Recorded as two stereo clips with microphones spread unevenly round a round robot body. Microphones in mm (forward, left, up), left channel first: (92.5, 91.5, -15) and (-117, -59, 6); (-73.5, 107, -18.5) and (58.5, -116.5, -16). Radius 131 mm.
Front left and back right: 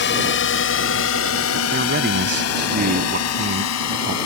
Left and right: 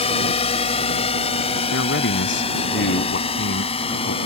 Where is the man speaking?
165° left.